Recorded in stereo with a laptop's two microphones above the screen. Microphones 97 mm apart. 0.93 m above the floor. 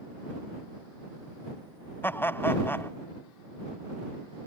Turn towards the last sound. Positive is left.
turn(degrees=25)  # may be behind; listen again after turning